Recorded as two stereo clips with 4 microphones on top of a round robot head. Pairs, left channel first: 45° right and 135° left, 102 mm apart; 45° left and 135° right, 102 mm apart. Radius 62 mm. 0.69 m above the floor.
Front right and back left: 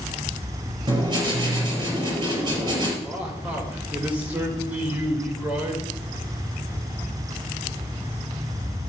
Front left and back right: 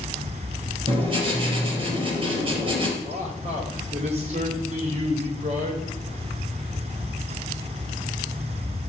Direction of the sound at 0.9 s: 170° right.